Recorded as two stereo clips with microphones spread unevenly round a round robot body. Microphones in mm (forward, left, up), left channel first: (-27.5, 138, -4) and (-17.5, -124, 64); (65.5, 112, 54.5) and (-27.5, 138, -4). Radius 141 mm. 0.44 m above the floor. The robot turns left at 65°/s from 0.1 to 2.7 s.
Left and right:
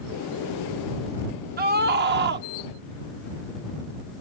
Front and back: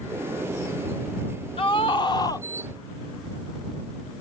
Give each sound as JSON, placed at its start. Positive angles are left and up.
{"t": 1.6, "sound": "a scream", "azimuth_deg": -50}